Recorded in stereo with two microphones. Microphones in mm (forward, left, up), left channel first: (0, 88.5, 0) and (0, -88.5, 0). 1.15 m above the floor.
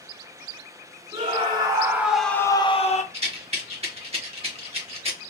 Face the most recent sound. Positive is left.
turn(degrees=-35)  # may be behind; listen again after turning